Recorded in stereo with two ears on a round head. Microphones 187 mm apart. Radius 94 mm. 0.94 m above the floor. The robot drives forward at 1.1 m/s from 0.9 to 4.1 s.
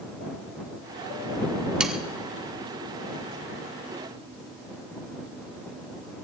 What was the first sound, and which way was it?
Sawing, 5° right (ahead or behind).